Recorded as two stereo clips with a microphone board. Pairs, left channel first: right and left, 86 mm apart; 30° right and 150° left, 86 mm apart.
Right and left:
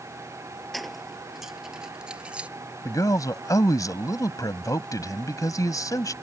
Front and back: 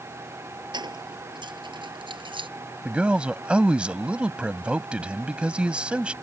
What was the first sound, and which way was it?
Keys jangling, straight behind.